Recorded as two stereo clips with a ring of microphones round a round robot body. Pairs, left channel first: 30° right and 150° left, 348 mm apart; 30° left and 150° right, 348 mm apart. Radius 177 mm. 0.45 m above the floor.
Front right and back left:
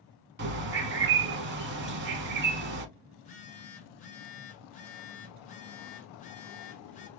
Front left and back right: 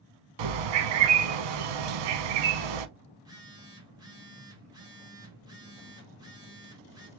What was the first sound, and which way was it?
A bird, 150° right.